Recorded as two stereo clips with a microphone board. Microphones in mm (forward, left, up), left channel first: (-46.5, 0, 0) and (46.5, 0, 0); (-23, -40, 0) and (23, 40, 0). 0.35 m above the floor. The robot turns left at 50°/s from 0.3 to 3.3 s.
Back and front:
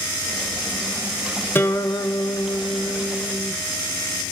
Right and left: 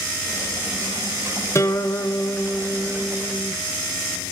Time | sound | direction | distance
1.6 | a guitar | 135° right | 1.3 m